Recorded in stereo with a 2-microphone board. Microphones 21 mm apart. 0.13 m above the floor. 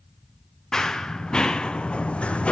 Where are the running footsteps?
35° left (ahead or behind), 1.3 m; by 2.5 s 65° left (ahead or behind), 0.6 m.